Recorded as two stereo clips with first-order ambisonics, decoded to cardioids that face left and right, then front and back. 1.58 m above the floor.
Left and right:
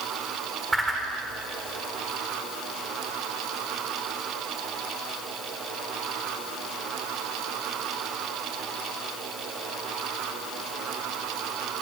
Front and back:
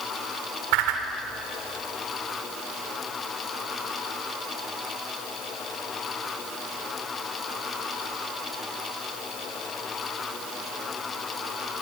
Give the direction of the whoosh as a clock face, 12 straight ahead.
6 o'clock.